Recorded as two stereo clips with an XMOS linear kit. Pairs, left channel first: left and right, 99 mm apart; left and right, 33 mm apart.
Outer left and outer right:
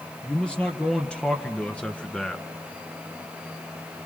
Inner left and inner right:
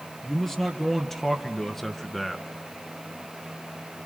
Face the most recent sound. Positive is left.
turn(degrees=10)  # may be behind; listen again after turning